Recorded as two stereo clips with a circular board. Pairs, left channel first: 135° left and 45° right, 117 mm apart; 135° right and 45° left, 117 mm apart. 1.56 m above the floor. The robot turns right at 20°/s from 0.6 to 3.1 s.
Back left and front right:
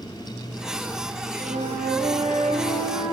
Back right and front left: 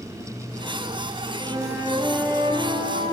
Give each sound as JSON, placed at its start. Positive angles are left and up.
{"t": 1.4, "sound": "a flute", "azimuth_deg": -40, "distance_m": 0.6}